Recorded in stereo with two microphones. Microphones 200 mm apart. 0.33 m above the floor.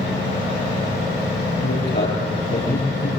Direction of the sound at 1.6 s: 60° left (ahead or behind).